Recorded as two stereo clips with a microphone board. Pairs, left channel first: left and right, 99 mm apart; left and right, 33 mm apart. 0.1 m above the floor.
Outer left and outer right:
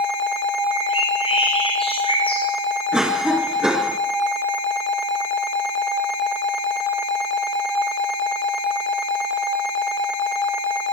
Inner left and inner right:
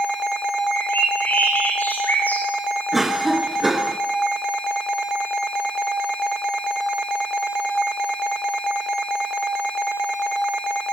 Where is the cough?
5° right (ahead or behind), 1.1 m.